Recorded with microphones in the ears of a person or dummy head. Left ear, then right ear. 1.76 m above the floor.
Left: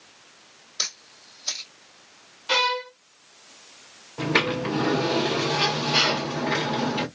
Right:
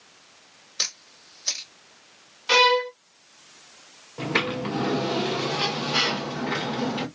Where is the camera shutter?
25° right (ahead or behind), 1.6 m.